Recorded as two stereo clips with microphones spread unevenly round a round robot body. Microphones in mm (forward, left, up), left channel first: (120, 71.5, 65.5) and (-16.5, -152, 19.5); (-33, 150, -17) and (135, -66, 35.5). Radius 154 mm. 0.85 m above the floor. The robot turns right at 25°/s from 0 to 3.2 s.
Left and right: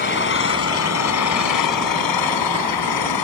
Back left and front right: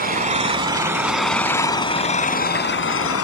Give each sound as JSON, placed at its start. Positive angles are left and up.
{"t": 0.0, "sound": "an engine running", "azimuth_deg": 5}